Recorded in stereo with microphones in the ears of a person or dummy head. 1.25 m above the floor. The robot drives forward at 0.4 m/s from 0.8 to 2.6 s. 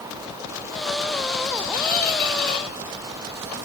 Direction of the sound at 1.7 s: 50° left (ahead or behind).